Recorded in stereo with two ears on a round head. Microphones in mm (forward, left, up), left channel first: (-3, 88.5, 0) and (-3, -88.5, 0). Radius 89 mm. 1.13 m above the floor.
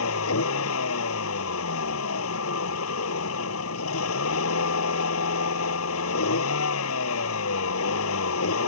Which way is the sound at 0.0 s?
80° left.